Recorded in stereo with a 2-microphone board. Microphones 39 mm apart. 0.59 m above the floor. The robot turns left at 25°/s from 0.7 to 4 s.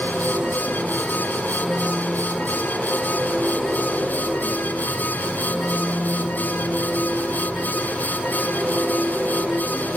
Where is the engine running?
160° right, 9 m; by 10.0 s 120° left, 9 m.